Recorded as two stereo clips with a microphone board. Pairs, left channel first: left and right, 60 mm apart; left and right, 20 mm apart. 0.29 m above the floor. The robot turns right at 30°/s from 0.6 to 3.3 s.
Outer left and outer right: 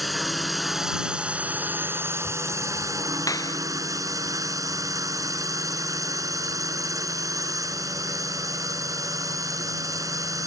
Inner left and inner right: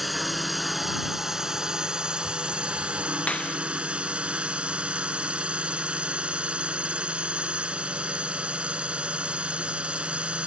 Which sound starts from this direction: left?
A clap, at 3.3 s.